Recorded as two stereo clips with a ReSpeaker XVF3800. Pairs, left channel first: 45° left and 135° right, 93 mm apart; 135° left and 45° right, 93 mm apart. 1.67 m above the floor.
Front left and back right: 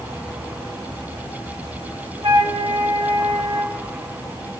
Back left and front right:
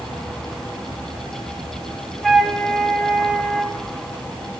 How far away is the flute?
About 1.5 m.